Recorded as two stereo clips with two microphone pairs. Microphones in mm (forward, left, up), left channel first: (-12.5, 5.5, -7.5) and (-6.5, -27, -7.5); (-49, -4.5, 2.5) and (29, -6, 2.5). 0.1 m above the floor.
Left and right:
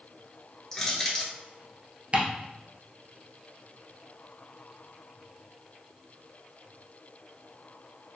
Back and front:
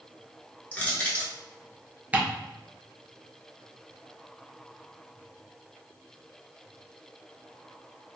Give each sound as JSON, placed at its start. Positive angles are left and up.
{"t": 0.7, "sound": "crushing", "azimuth_deg": 150, "distance_m": 1.2}
{"t": 2.1, "sound": "ticking", "azimuth_deg": -60, "distance_m": 1.0}